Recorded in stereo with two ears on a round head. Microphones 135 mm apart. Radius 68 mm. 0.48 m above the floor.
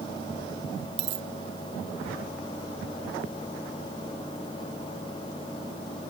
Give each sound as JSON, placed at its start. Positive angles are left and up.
{"t": 1.0, "sound": "a dropped coin", "side_deg": -85}